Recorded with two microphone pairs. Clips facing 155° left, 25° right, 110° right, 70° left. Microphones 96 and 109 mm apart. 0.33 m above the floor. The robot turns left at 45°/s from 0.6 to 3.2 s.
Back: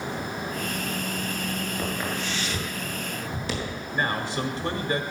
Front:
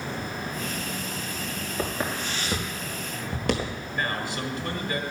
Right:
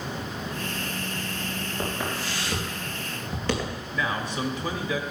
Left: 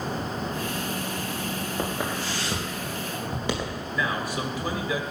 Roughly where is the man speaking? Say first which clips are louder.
Back 3 dB, even; behind left.